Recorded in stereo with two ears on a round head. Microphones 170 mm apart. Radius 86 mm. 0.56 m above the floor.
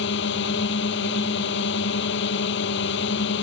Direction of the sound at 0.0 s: 70° left (ahead or behind).